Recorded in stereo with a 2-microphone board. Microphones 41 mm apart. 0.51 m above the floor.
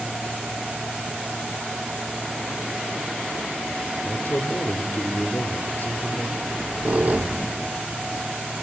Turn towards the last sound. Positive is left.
turn(degrees=-40)  # may be behind; listen again after turning